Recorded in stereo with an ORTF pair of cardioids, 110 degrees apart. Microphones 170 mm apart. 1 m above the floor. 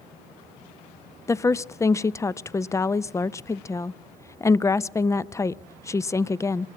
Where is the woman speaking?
20° left, 0.5 m.